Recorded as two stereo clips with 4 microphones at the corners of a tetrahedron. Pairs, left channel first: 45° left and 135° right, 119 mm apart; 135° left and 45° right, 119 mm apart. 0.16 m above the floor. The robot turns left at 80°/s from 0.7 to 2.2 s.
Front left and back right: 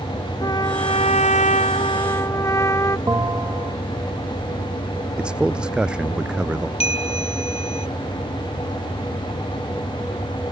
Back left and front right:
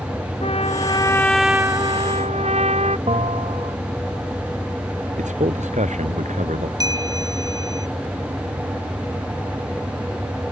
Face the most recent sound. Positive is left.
turn(degrees=15)